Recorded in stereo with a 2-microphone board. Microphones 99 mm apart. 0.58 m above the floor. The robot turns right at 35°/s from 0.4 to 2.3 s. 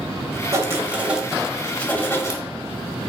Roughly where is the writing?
Ahead right.